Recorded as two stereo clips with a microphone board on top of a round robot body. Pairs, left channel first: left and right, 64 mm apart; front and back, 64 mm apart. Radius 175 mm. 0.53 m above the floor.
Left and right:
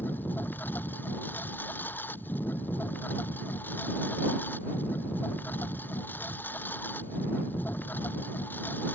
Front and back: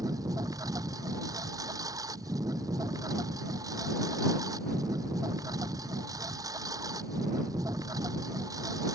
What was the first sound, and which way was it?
A lawn mower, 150° left.